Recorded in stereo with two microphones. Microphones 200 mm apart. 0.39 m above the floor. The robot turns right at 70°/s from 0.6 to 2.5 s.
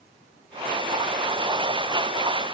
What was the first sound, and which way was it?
Only background noise.